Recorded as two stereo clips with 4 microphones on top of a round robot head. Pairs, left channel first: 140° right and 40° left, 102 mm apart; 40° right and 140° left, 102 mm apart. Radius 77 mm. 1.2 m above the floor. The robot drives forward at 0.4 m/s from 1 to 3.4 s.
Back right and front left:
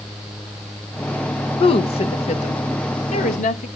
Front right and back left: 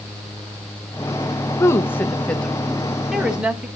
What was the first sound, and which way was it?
A woman speaking, 100° right.